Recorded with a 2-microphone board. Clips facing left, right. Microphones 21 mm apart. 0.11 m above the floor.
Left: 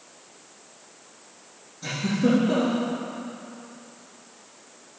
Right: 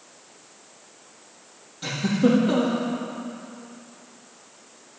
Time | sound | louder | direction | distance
1.8 | a giggle | right 2 dB | 65° right (ahead or behind) | 4 m